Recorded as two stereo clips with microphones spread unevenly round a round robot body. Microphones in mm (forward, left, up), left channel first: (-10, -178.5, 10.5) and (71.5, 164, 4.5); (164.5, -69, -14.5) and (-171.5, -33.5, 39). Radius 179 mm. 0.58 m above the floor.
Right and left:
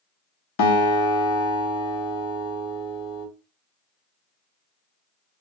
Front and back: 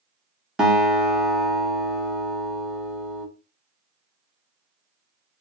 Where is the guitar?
90° right, 0.9 m.